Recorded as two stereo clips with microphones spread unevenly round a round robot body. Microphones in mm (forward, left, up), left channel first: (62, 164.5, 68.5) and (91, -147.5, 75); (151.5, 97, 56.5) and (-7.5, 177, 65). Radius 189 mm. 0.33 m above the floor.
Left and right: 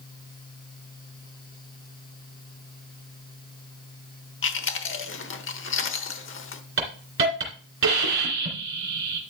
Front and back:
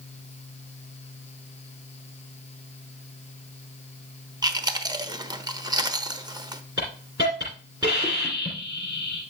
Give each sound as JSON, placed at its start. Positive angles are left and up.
{"t": 4.4, "sound": "chewing", "azimuth_deg": 90, "distance_m": 1.2}
{"t": 6.8, "sound": "a hiss", "azimuth_deg": -130, "distance_m": 3.0}